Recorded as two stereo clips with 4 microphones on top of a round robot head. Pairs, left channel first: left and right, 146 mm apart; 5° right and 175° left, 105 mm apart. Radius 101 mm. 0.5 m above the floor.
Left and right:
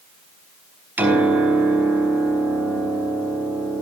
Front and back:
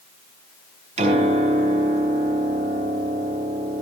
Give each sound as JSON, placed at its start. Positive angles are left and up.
{"t": 1.0, "sound": "a piano", "azimuth_deg": -170, "distance_m": 6.0}